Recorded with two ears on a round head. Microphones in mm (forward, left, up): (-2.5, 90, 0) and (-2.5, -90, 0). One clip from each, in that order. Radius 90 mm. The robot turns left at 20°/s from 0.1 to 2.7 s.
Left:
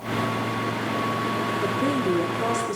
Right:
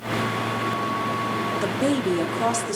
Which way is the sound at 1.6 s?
50° right (ahead or behind).